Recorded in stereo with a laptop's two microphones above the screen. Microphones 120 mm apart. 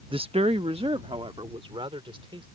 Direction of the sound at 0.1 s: 50° right (ahead or behind).